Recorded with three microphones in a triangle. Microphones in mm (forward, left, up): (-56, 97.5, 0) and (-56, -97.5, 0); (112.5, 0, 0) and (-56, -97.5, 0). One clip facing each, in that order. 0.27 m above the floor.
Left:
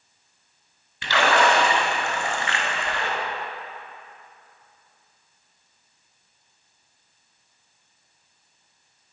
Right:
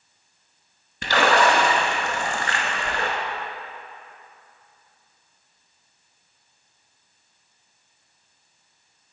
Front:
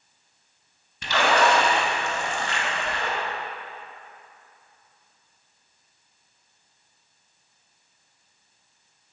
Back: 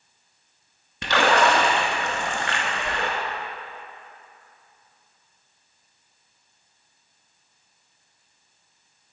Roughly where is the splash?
Behind right.